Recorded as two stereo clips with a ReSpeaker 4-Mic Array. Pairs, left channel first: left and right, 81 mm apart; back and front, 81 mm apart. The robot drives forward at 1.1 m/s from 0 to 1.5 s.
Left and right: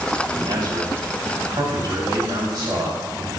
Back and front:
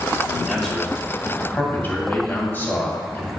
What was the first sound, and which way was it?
A man speaking, 85° right.